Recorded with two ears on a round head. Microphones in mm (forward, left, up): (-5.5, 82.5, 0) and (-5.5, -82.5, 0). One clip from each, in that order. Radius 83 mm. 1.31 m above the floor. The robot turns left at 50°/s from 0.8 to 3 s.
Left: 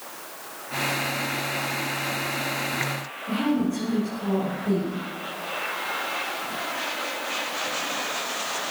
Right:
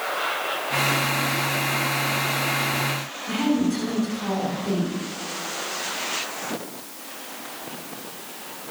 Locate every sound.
3.3 s a woman speaking: 75° right (ahead or behind), 9 m